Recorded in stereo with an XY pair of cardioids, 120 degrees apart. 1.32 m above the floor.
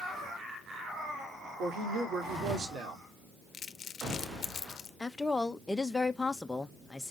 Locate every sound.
1.6 s a woman speaking: 65° right, 3.5 m
3.5 s crumpling: 45° left, 1.1 m
5.0 s a woman speaking: 10° left, 1.1 m